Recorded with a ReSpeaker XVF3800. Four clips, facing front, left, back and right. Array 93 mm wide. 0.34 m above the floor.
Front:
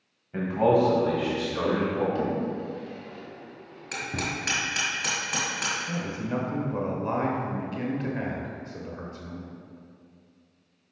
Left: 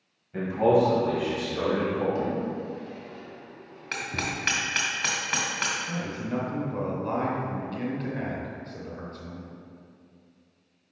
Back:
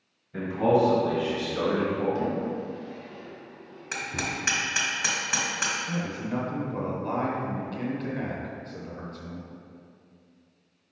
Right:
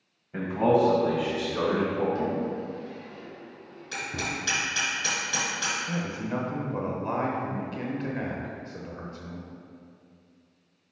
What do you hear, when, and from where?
0.3 s a man speaking: 35° right, 1.7 m; by 2.0 s 15° right, 2.5 m
2.1 s a drawer: 5° left, 1.1 m
3.9 s hammering: 110° left, 1.8 m
5.9 s a man speaking: 40° right, 0.9 m